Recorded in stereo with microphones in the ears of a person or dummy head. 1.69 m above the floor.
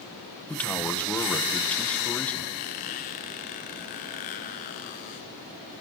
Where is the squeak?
40° left (ahead or behind), 2 m.